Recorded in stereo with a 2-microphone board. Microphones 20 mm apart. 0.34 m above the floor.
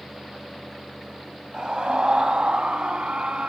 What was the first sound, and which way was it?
A scream, 40° right (ahead or behind).